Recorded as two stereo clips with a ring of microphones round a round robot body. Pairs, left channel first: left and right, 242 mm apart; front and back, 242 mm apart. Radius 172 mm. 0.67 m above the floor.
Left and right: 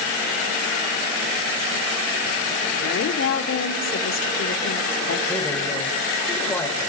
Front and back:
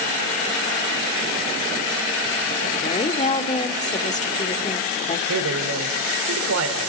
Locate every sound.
2.8 s a woman speaking: 60° left, 1.8 m
5.3 s a man speaking: 175° left, 2.5 m